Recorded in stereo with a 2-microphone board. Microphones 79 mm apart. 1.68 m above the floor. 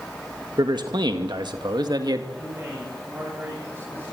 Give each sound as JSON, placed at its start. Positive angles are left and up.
{"t": 0.6, "sound": "a man speaking", "side_deg": -65, "distance_m": 1.9}
{"t": 2.3, "sound": "a man speaking", "side_deg": -30, "distance_m": 10.0}